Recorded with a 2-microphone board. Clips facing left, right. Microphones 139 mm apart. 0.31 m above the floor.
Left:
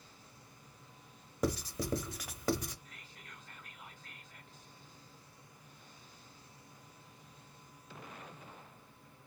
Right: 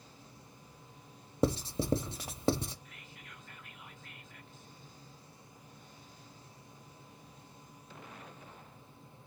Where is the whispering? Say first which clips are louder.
Right 2 dB; 35° left (ahead or behind), 2.5 m.